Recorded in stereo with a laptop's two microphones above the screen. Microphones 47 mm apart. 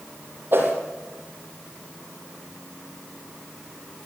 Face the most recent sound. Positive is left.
turn(degrees=-50)  # may be behind; listen again after turning